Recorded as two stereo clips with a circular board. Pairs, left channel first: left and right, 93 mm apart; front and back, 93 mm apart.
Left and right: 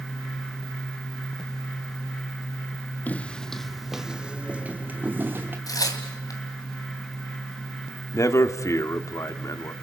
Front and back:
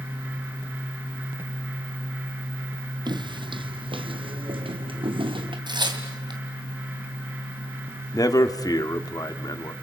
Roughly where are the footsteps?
Behind.